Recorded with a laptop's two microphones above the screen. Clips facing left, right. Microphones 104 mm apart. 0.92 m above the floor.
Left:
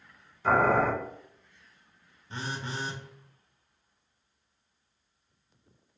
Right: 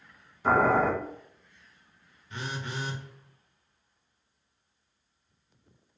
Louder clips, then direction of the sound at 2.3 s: Even; 30° left (ahead or behind).